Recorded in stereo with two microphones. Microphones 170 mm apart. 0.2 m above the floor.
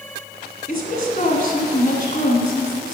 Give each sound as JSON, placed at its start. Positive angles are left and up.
{"t": 0.7, "sound": "a woman speaking", "side_deg": 50, "distance_m": 1.5}